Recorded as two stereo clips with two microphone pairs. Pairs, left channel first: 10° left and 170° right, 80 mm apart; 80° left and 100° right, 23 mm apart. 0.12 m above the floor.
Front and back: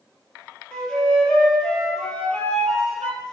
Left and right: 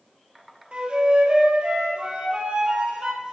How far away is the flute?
About 2.0 m.